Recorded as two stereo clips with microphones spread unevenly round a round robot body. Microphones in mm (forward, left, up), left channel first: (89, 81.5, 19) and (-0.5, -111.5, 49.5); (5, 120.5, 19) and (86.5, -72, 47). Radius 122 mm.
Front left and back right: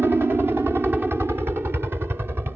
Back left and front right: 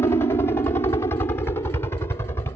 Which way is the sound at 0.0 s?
160° left.